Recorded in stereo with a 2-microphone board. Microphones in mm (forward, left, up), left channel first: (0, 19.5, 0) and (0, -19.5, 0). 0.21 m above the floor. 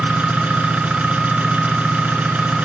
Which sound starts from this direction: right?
An engine running, at 0.0 s.